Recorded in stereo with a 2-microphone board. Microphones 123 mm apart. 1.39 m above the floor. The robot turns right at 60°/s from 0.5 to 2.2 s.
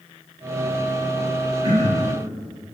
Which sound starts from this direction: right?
Throat clearing, at 1.6 s.